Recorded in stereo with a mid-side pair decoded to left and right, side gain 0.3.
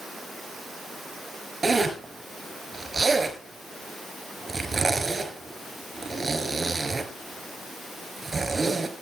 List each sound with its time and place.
1.6 s a zipper: 45° right, 5.5 m